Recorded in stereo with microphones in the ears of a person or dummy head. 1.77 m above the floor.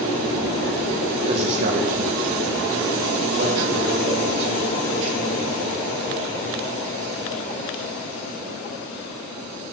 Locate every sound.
1.3 s a man speaking: 35° right (ahead or behind), 2 m; by 5.7 s 85° right, 6.5 m